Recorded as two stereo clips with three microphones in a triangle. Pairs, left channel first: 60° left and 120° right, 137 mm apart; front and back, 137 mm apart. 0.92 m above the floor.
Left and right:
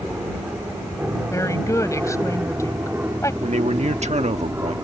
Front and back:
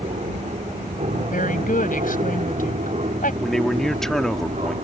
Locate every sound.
0.0 s an aircraft: 160° left; by 4.8 s 170° left
1.3 s a woman speaking: 10° right
3.4 s a man speaking: 85° right